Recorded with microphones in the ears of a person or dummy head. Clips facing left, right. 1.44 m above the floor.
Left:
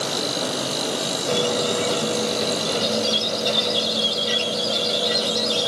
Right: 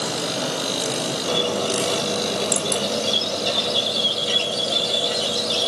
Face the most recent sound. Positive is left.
turn(degrees=20)  # may be behind; listen again after turning